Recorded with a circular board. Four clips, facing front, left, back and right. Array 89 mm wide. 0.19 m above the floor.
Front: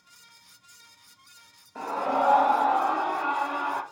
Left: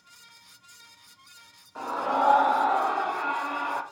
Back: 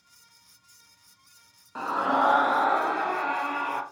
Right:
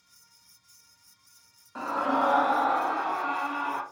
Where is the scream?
155° right, 1.7 m; by 3.8 s straight behind, 3.5 m.